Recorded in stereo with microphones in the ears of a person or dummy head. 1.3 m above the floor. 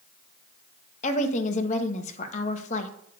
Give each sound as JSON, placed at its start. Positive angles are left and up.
{"t": 1.0, "sound": "a woman speaking", "side_deg": 45, "distance_m": 1.3}